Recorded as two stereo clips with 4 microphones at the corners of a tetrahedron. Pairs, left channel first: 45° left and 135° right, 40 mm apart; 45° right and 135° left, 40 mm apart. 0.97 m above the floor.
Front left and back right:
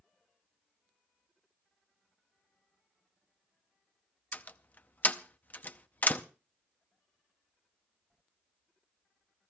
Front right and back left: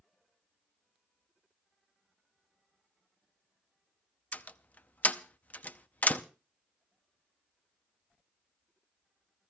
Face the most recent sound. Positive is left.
turn(degrees=5)